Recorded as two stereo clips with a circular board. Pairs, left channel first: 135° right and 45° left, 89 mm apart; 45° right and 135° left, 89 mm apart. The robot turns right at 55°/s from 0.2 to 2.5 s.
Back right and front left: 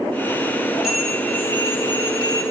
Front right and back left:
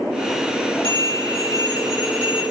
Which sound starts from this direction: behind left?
A bell, at 0.8 s.